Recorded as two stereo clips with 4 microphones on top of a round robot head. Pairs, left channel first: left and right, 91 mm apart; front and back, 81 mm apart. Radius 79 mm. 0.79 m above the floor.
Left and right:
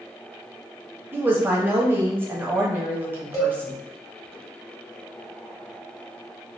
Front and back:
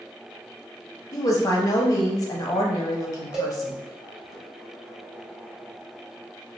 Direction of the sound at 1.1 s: 30° right.